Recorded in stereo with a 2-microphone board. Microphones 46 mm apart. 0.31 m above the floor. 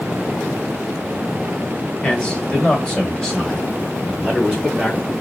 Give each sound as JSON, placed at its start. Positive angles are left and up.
{"t": 2.0, "sound": "a man speaking", "side_deg": 20, "distance_m": 1.6}